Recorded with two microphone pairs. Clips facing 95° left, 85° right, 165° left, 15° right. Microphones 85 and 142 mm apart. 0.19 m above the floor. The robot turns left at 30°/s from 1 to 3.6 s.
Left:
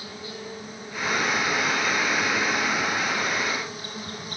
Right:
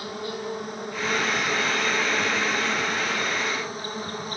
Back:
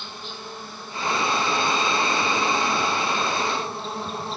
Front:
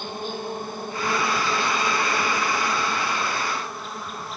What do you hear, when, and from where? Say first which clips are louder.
0.0 s an insect: right 6 dB, front 8 dB; 55° right, 2 m; by 4.4 s 130° right, 2 m